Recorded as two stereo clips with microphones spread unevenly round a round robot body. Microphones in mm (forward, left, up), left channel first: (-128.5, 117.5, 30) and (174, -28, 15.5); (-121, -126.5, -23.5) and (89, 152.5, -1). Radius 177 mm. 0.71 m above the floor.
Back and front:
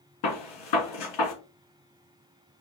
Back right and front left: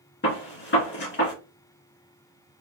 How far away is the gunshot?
About 1.9 m.